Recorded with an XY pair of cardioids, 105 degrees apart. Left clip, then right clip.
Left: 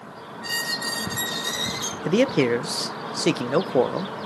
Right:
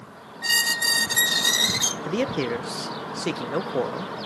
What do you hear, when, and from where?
0.4 s a squeak: 60° right, 1.1 m
2.0 s a man speaking: 40° left, 0.7 m